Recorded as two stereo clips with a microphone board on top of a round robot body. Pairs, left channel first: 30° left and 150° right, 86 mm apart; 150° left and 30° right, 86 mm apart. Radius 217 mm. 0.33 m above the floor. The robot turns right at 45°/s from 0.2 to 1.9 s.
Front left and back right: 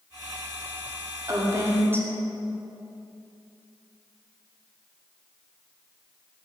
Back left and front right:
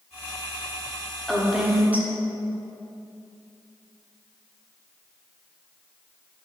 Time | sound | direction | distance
1.3 | a woman speaking | 125° right | 1.8 m